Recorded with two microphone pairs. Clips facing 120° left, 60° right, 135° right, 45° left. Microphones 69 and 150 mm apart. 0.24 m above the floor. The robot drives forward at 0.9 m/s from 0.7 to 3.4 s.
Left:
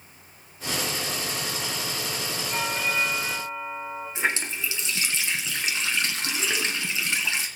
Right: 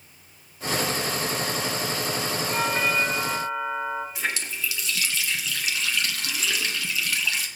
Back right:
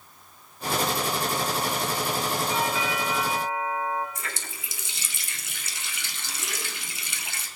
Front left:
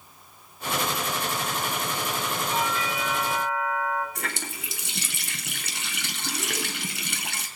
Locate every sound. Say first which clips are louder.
2.5 s a doorbell: right 3 dB, back right 1 dB; 45° right, 7 m; by 4.0 s 50° right, 6.5 m
4.2 s a running tap: left 3 dB, front left 4 dB; 60° left, 1.5 m